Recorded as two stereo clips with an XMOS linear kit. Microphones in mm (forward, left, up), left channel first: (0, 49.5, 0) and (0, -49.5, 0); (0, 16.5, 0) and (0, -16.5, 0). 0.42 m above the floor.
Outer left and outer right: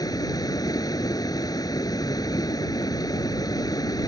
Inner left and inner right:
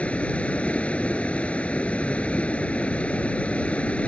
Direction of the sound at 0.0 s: 40° left (ahead or behind).